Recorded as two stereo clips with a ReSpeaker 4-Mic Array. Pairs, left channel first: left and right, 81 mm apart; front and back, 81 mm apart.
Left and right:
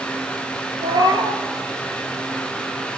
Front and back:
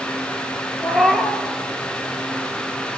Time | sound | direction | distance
0.8 | a cat meowing | 90° right | 0.6 m